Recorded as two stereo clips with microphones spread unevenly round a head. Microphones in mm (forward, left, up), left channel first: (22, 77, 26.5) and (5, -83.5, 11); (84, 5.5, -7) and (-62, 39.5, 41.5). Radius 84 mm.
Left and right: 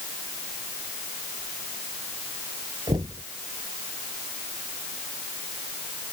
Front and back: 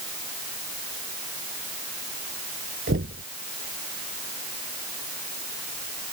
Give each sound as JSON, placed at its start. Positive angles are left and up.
{"t": 2.9, "sound": "knocking", "azimuth_deg": -170}